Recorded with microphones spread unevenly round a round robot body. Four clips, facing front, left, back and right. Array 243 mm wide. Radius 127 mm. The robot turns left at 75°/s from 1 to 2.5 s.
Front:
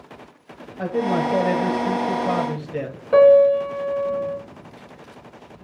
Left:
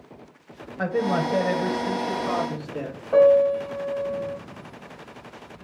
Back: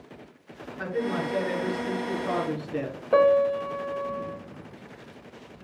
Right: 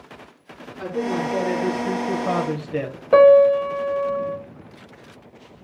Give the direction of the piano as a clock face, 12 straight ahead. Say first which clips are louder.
Right 5 dB, front 8 dB; 2 o'clock.